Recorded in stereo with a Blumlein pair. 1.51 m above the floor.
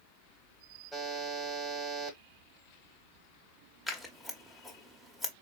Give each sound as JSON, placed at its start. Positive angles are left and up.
{"t": 0.9, "sound": "a buzzer", "azimuth_deg": 5, "distance_m": 1.2}
{"t": 3.9, "sound": "scissors", "azimuth_deg": 10, "distance_m": 0.9}